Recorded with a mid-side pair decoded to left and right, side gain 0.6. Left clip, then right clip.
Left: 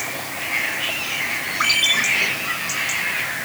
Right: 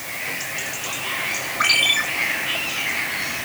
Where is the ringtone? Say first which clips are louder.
Even; 20° right, 9.5 m.